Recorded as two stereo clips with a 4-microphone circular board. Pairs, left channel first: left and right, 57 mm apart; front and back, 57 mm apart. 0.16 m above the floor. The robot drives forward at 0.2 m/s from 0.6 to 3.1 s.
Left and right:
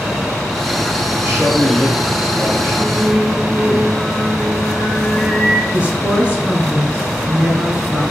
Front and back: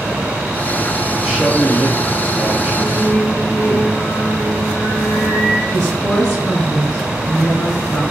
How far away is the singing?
About 0.8 m.